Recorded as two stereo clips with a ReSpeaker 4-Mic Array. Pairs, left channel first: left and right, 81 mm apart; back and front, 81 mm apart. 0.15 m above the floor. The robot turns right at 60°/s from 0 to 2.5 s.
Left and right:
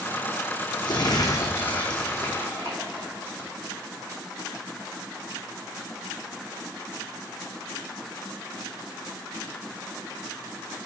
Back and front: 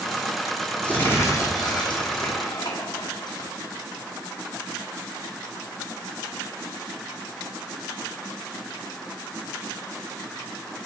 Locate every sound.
0.8 s crumpling: 105° left, 1.8 m; by 3.5 s 155° right, 1.8 m